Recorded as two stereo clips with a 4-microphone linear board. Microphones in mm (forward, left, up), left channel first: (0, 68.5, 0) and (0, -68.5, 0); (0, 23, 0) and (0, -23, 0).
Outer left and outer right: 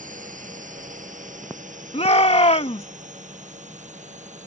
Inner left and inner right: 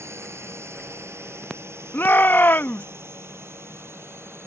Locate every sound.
0.0 s a drone: 70° right (ahead or behind); by 4.5 s 60° right (ahead or behind)
1.9 s a shout: 50° left (ahead or behind)